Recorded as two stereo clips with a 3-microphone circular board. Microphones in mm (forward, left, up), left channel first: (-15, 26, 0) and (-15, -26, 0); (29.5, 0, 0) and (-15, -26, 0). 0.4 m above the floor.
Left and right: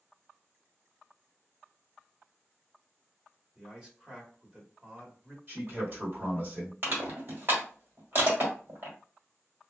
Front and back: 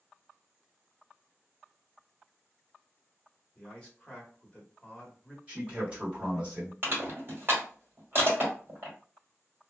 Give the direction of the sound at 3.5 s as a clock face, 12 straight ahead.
1 o'clock.